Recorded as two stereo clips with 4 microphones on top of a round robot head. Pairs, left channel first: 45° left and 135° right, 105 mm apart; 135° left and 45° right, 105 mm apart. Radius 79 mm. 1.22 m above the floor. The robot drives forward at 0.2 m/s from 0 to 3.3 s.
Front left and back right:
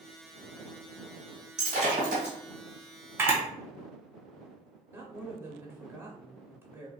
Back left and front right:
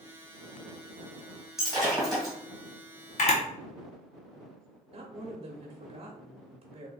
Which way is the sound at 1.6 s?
130° right.